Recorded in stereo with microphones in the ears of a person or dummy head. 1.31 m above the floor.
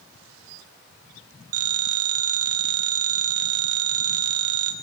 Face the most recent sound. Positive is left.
turn(degrees=-55)  # may be behind; listen again after turning